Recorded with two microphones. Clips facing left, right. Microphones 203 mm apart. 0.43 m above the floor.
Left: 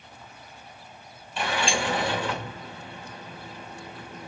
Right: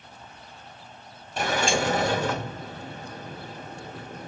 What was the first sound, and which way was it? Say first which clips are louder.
A sliding door: right 3 dB; 45° right (ahead or behind).